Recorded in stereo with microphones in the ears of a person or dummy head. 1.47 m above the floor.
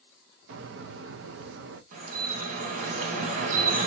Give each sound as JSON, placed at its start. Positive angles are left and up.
{"t": 0.5, "sound": "a bird", "side_deg": -65, "distance_m": 0.8}
{"t": 1.9, "sound": "dripping", "side_deg": -45, "distance_m": 2.0}